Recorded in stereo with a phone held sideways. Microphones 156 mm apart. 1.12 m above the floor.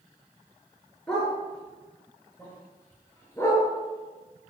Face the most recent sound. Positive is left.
turn(degrees=20)  # may be behind; listen again after turning